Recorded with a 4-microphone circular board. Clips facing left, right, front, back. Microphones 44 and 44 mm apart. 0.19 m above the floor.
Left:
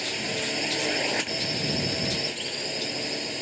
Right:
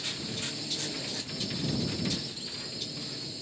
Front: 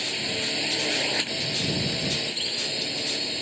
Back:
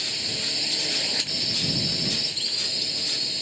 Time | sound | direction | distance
0.0 | a drone | 70° left | ?